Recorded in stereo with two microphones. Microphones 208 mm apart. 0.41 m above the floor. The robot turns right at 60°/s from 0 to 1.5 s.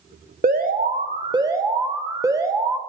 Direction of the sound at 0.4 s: 85° right.